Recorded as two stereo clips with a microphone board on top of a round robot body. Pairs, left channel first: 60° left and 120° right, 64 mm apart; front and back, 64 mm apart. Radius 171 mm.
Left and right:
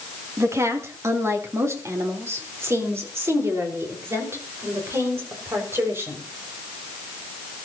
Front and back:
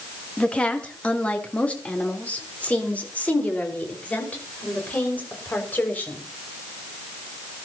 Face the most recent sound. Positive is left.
turn(degrees=-65)